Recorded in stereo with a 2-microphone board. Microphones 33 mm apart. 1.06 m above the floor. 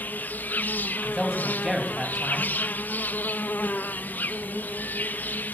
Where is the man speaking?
5° right (ahead or behind), 7 m.